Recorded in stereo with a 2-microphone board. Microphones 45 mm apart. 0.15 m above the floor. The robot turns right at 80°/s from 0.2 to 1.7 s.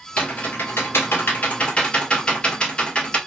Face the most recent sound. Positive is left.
turn(degrees=25)  # may be behind; listen again after turning